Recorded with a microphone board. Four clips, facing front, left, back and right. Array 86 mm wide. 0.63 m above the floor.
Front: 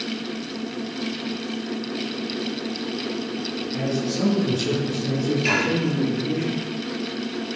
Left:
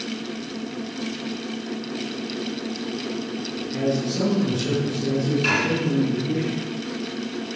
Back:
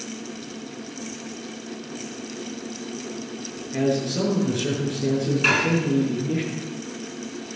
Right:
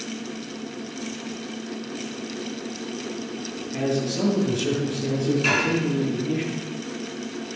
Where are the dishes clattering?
175° left, 5 m.